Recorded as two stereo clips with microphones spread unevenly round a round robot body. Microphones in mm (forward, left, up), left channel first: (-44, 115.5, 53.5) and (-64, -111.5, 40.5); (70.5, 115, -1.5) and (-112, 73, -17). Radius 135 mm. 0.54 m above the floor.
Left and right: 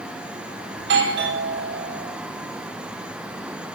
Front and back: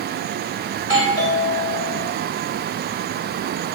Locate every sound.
0.8 s a doorbell: 65° right, 3 m